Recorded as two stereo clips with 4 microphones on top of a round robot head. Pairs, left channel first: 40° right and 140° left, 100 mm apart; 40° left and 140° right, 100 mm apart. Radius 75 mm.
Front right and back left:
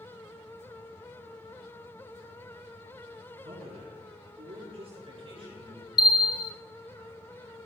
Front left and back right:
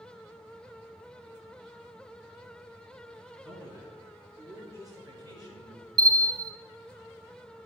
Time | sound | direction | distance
3.4 | a man speaking | 155° left | 6 m
6.0 | a bell | 85° right | 0.7 m